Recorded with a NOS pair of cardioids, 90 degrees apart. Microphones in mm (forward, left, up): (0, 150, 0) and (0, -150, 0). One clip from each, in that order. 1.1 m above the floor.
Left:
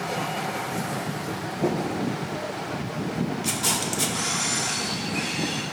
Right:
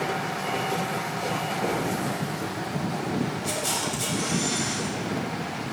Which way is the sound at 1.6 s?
60° left.